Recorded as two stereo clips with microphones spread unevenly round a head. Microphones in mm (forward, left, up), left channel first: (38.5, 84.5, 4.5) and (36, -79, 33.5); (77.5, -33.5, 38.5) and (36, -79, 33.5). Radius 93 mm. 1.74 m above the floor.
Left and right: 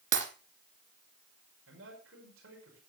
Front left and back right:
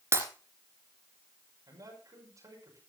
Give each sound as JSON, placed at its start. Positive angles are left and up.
{"t": 0.1, "sound": "breaking glass", "azimuth_deg": -100, "distance_m": 2.5}
{"t": 1.7, "sound": "a man speaking", "azimuth_deg": -110, "distance_m": 6.0}